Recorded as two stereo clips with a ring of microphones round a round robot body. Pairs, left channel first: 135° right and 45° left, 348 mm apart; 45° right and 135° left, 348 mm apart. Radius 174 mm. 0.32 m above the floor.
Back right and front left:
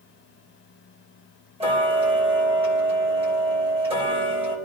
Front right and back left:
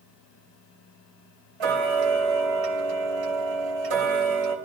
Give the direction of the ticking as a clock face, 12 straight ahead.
8 o'clock.